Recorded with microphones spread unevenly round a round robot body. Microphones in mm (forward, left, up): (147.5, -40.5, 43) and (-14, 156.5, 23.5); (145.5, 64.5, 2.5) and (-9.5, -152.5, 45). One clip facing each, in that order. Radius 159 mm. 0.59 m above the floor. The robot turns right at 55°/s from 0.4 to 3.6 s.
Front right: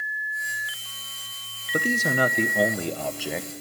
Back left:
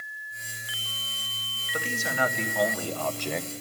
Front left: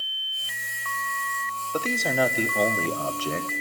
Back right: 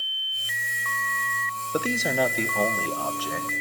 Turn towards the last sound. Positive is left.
turn(degrees=55)